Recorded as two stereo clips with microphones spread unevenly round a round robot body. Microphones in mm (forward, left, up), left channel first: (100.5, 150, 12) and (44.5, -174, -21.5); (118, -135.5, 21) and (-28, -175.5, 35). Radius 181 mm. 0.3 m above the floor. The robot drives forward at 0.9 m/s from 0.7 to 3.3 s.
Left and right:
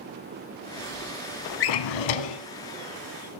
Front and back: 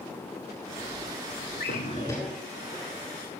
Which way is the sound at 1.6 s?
60° left.